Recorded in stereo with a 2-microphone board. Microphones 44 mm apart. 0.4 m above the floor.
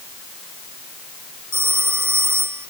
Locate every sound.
1.5 s a phone ringing: 75° right (ahead or behind)